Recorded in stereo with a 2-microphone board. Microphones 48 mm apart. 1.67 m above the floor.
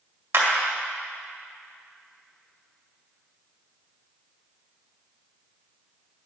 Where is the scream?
I don't hear a scream.